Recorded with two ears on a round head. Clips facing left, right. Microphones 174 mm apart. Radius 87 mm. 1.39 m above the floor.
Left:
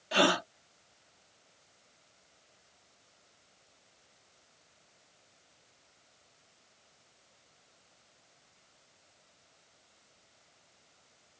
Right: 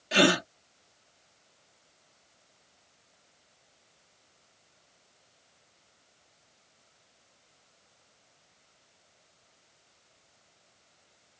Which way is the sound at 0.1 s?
30° right (ahead or behind).